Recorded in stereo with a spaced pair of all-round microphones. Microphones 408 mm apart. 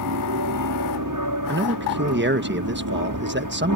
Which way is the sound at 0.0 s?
50° right (ahead or behind).